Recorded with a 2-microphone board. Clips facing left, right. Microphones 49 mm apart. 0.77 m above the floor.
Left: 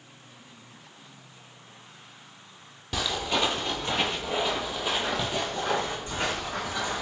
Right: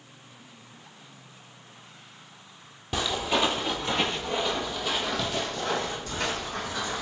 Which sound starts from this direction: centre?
Footsteps, at 2.9 s.